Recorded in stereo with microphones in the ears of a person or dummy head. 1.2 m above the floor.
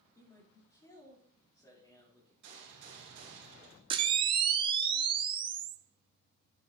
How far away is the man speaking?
About 3 m.